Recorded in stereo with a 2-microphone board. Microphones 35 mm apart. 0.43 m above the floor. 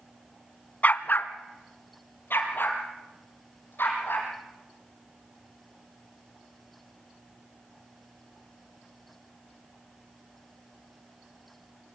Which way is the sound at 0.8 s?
50° left (ahead or behind).